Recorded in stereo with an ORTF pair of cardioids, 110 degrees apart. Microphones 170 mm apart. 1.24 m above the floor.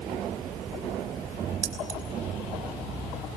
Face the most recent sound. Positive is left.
turn(degrees=-50)